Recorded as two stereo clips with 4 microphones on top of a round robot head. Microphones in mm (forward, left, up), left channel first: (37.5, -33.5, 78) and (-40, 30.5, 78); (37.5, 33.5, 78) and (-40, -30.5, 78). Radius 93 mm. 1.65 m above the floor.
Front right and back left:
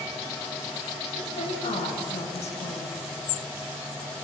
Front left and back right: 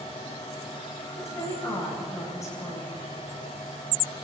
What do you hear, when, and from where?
1.2 s a woman speaking: 20° right, 8.5 m